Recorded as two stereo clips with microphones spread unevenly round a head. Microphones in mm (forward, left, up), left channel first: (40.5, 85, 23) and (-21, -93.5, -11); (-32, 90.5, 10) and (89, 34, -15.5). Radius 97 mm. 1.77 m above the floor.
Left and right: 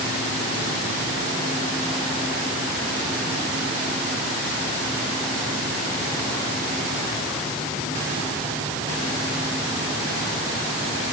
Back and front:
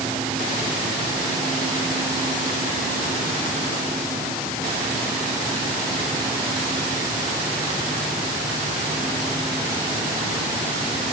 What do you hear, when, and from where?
Only background noise.